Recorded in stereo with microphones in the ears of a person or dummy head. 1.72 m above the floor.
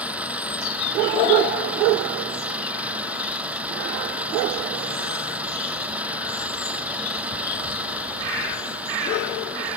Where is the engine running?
5° right (ahead or behind).